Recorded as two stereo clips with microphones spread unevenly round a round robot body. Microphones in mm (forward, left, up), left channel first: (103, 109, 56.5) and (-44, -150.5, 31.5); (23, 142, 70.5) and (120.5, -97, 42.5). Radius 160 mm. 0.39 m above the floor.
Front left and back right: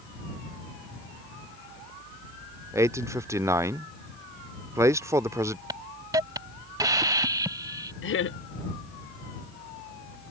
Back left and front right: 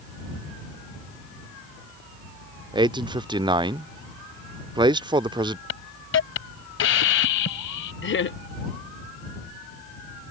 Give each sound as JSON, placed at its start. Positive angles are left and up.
{"t": 2.7, "sound": "a man speaking", "azimuth_deg": -65}
{"t": 5.7, "sound": "a hiss", "azimuth_deg": 165}
{"t": 8.0, "sound": "laughter", "azimuth_deg": 90}